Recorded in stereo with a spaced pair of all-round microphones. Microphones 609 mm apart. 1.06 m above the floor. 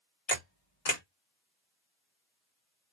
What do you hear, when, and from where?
0.3 s a camera shutter: 70° left (ahead or behind), 1.4 m